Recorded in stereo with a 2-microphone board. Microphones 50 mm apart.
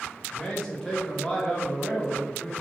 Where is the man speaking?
10° left (ahead or behind), 1.0 m.